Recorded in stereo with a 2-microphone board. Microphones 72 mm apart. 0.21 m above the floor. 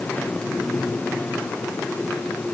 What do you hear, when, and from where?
Only background noise.